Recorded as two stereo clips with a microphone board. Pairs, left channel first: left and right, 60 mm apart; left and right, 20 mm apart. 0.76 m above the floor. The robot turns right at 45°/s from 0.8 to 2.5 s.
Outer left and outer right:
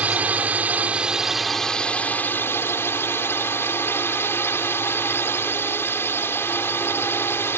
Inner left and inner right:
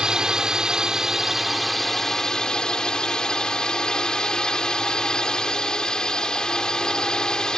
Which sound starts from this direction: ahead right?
A drone, at 0.0 s.